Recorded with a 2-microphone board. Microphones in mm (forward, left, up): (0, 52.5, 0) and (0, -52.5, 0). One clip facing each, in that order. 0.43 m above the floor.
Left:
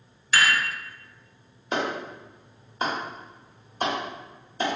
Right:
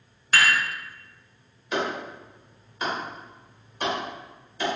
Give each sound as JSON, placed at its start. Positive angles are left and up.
{"t": 0.3, "sound": "dishes clattering", "side_deg": -50, "distance_m": 0.9}
{"t": 1.7, "sound": "a clap", "side_deg": 35, "distance_m": 1.2}